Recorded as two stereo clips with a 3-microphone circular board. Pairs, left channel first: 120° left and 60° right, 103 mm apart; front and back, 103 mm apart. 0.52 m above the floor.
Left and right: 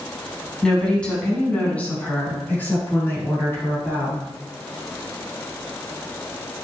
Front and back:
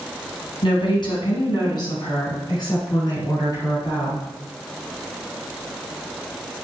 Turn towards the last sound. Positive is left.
turn(degrees=55)